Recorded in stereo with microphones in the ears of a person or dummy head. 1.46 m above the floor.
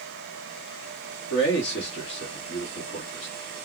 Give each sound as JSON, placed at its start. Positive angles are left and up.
{"t": 1.3, "sound": "a man speaking", "side_deg": 80, "distance_m": 1.4}